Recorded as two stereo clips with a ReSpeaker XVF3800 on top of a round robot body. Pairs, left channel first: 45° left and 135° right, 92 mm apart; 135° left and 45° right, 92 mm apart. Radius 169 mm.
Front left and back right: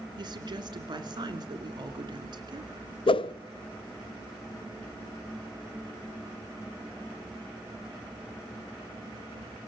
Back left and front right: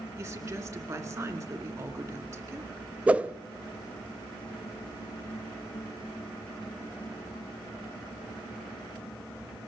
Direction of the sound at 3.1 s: 30° left.